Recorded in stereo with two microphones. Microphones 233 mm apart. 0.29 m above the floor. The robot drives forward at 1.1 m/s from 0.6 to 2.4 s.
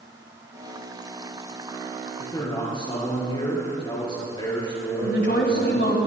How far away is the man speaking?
About 4 m.